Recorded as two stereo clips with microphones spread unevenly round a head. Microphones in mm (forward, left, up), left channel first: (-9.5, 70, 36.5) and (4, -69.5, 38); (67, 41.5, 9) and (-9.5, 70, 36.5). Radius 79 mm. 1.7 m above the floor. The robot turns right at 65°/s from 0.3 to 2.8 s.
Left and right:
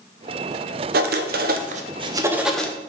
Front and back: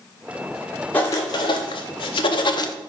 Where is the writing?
100° right, 0.7 m; by 2.7 s 15° left, 0.7 m.